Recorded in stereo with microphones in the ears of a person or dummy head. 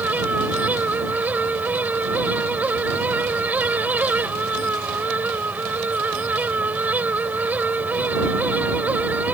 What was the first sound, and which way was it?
A fan, 5° right (ahead or behind).